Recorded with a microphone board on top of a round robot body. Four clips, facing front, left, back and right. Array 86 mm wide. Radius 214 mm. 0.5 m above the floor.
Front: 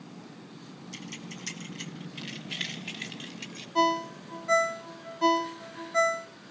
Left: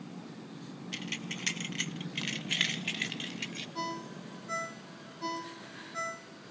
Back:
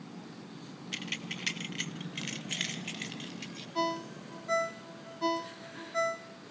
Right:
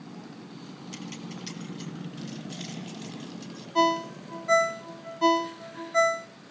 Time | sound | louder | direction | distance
0.9 | keys jangling | right 2 dB, back 2 dB | 155° left | 2 m
3.8 | a ringtone | right 15 dB, front 7 dB | 60° right | 1.1 m